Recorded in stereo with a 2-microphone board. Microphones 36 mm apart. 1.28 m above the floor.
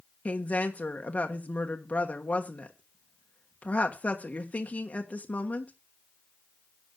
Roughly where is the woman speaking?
Left.